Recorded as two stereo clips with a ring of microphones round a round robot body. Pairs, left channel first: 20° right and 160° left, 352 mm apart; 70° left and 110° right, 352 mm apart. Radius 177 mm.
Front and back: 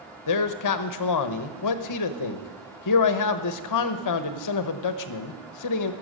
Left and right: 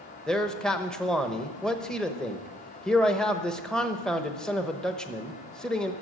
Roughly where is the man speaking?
Ahead.